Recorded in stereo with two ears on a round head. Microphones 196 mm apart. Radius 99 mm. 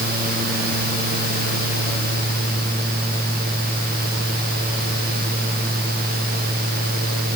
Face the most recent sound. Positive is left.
No sound to turn to.